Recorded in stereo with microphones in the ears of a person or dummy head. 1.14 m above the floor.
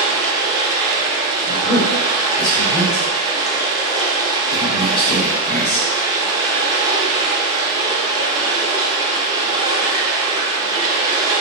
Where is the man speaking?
45° left (ahead or behind), 1.5 m.